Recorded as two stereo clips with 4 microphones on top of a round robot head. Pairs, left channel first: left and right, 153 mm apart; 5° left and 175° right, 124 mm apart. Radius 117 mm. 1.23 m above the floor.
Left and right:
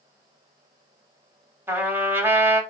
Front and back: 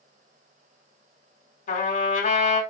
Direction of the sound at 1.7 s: 15° right.